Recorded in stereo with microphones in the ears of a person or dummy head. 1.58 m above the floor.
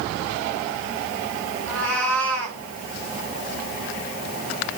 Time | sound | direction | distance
1.7 | a cat meowing | 5° left (ahead or behind) | 5 m